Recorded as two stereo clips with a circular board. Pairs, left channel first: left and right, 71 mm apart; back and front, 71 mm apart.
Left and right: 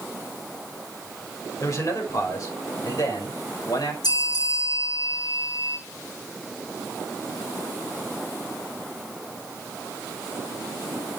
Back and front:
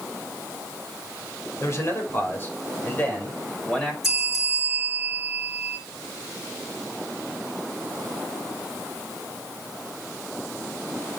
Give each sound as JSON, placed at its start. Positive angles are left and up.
{"t": 1.6, "sound": "a man speaking", "azimuth_deg": 135, "distance_m": 4.5}
{"t": 4.0, "sound": "a bell", "azimuth_deg": 85, "distance_m": 6.5}